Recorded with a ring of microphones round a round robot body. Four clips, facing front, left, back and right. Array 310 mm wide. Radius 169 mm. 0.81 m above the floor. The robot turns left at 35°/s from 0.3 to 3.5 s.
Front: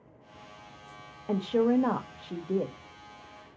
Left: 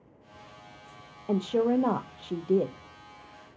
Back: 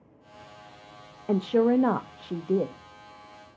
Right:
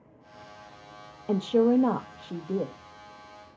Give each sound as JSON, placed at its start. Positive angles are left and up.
{"t": 1.3, "sound": "a woman speaking", "azimuth_deg": -160, "distance_m": 0.8}